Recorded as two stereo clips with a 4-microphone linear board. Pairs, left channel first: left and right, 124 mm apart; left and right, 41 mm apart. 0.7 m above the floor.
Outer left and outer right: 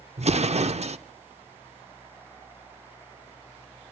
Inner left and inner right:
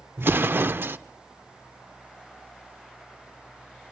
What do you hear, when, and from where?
0.2 s an explosion: 65° right (ahead or behind), 0.6 m